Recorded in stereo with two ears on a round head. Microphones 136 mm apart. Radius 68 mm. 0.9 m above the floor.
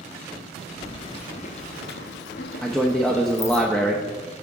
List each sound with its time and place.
0.8 s keys jangling: 25° left (ahead or behind), 0.9 m; by 3.6 s 40° left (ahead or behind), 1.2 m
2.6 s a man speaking: 5° left (ahead or behind), 0.6 m